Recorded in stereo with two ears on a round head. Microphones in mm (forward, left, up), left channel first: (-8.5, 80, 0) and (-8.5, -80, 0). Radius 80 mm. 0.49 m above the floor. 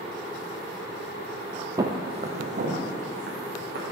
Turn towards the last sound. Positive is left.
turn(degrees=-55)  # may be behind; listen again after turning